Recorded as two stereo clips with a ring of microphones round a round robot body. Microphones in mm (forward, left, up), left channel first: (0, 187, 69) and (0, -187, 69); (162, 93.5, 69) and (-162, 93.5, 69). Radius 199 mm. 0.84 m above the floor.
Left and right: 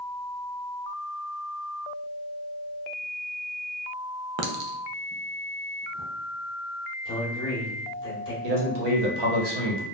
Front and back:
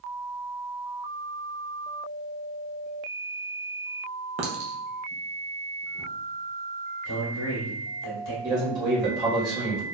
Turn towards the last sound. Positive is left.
turn(degrees=-100)